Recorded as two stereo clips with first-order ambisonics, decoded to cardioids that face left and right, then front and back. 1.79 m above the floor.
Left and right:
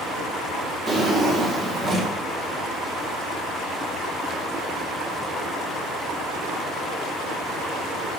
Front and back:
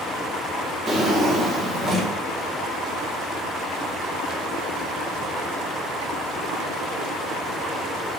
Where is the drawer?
135° right, 0.9 m.